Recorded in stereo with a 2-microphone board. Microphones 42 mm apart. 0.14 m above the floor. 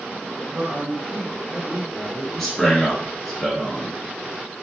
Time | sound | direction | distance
0.5 | a man speaking | 20° right (ahead or behind) | 1.6 m
2.3 | a man speaking | 5° left (ahead or behind) | 1.2 m